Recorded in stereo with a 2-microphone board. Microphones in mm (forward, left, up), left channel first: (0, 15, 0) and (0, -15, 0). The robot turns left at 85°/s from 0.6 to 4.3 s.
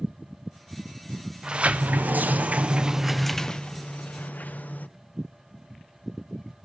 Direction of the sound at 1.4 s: 25° right.